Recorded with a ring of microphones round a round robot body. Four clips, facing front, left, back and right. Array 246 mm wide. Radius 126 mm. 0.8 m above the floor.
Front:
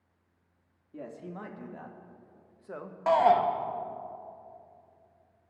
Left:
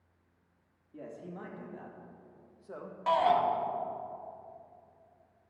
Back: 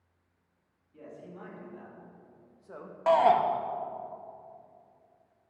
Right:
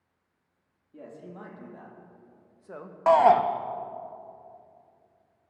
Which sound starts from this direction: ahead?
A man speaking, at 0.9 s.